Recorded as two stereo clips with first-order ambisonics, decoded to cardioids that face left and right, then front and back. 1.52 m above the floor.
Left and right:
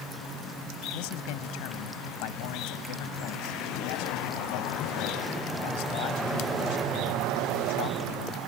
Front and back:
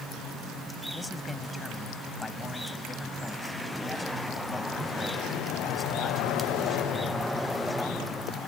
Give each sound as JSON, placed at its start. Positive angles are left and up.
{"t": 0.9, "sound": "a man speaking", "azimuth_deg": 80}